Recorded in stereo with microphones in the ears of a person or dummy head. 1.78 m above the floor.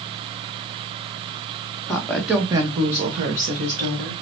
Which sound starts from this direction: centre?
A woman speaking, at 1.9 s.